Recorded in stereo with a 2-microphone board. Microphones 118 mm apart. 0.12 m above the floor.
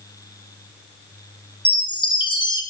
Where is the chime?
45° left (ahead or behind), 1.9 m.